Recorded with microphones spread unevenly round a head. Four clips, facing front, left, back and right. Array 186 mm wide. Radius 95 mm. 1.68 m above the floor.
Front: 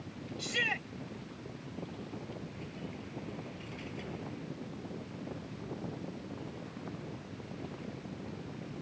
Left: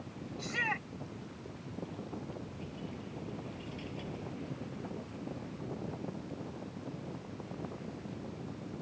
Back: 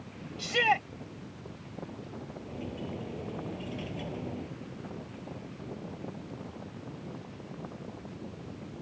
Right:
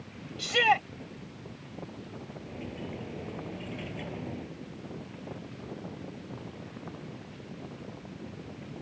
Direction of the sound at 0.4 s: 125° right.